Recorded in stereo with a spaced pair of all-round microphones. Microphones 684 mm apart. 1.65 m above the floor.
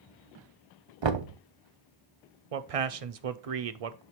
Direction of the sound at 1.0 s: 45° right (ahead or behind).